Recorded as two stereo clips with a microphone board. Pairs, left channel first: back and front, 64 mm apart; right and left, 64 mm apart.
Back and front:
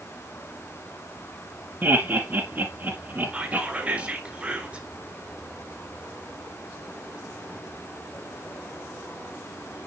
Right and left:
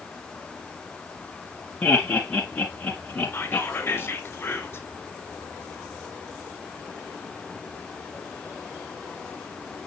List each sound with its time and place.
1.8 s laughter: 30° right, 1.6 m
3.3 s whispering: 60° right, 1.6 m